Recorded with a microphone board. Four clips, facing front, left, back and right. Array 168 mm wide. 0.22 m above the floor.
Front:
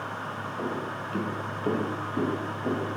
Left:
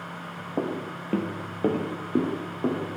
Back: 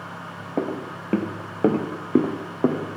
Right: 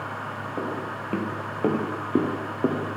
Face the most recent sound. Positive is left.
turn(degrees=-160)